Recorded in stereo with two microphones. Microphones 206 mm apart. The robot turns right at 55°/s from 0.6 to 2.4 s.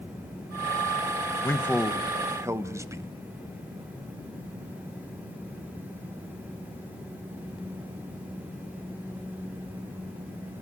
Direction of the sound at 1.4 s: 10° left (ahead or behind).